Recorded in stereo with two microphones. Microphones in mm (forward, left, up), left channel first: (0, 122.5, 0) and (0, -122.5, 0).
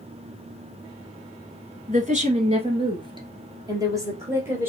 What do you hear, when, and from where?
1.9 s a woman speaking: 35° right (ahead or behind), 1.4 m; by 4.7 s 10° right (ahead or behind), 3 m